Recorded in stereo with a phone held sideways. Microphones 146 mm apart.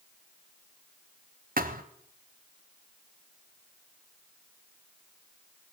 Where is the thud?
65° right (ahead or behind), 1.8 m.